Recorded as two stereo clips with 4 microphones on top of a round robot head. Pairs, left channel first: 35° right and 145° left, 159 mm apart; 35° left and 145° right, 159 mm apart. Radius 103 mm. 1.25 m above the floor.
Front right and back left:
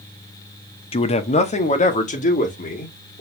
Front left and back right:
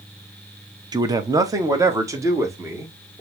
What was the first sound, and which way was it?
A man speaking, 85° right.